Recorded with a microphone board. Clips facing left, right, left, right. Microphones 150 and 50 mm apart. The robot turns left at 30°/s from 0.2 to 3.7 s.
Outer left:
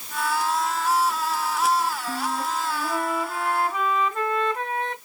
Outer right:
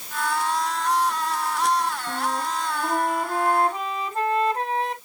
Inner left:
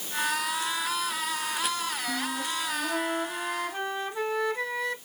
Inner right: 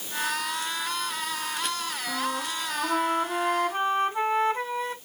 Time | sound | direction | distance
2.1 | a flute | 90° right | 2.5 m